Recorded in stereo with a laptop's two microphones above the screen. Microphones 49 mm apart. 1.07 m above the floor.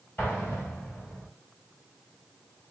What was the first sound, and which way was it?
An explosion, 40° left (ahead or behind).